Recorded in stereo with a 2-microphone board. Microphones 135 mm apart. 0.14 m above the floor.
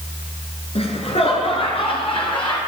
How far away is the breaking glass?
No breaking glass in this recording.